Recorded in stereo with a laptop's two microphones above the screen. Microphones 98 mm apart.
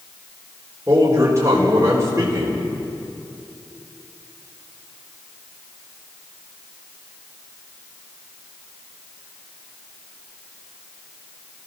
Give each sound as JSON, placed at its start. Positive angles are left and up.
{"t": 0.9, "sound": "a man speaking", "side_deg": -30, "distance_m": 4.0}